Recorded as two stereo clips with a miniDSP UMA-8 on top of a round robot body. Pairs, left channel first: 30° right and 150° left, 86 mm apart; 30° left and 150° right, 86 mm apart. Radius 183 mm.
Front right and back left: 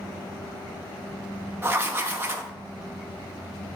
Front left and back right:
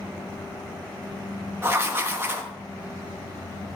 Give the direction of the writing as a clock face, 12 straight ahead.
6 o'clock.